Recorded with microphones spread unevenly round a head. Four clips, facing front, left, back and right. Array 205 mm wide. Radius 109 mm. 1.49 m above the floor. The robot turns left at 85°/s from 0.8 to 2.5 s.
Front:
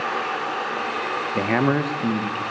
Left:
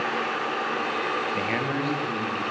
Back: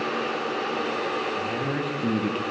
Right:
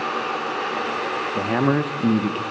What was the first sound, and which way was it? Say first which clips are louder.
A man speaking: right 7 dB, front 7 dB; 15° right.